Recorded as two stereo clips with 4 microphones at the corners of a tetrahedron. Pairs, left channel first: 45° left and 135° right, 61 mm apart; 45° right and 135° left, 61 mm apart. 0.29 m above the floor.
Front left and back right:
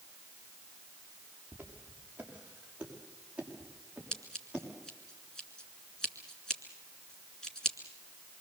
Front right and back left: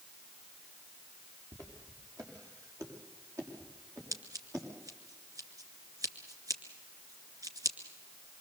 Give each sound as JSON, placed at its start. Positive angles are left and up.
{"t": 1.5, "sound": "footsteps", "azimuth_deg": 160, "distance_m": 6.0}
{"t": 4.1, "sound": "scissors", "azimuth_deg": 125, "distance_m": 2.0}